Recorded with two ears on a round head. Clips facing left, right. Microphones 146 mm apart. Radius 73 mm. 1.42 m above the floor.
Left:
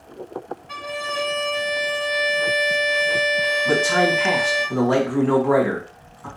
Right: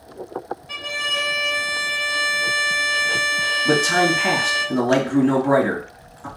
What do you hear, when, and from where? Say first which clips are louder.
0.7 s a violin: left 3 dB; 40° right (ahead or behind), 1.1 m
3.6 s a man speaking: right 2 dB; 35° right (ahead or behind), 1.4 m